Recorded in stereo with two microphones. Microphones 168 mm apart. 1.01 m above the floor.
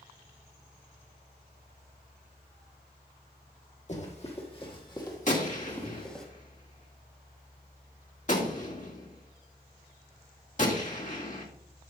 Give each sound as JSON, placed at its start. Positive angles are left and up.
{"t": 3.9, "sound": "running footsteps", "side_deg": 45, "distance_m": 2.0}
{"t": 5.3, "sound": "a gunshot", "side_deg": 50, "distance_m": 1.7}